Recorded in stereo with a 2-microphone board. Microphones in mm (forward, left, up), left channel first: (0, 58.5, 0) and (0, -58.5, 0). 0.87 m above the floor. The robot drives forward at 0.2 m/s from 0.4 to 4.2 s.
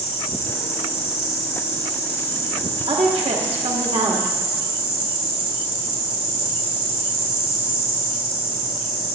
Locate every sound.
0.0 s an insect: 80° left, 2.5 m; by 9.2 s 65° left (ahead or behind), 3 m
2.9 s a woman speaking: 60° right (ahead or behind), 1.5 m; by 4.4 s 70° right (ahead or behind), 1.5 m